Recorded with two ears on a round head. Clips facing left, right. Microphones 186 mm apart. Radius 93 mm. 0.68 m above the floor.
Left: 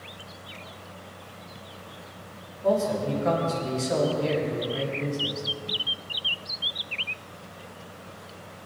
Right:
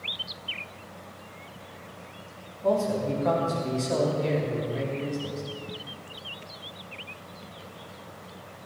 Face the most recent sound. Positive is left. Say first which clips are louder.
# left 1 dB
turn(degrees=5)  # may be behind; listen again after turning